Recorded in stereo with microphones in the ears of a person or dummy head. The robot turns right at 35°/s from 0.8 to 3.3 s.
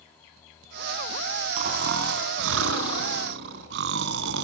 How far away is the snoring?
About 2.5 m.